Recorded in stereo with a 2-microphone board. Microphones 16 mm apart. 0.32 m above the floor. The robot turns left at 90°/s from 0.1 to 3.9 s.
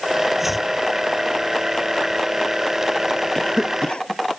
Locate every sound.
0.4 s chopping: 20° right (ahead or behind); by 0.7 s 5° left (ahead or behind)
3.4 s a cough: 145° left; by 4.2 s 95° left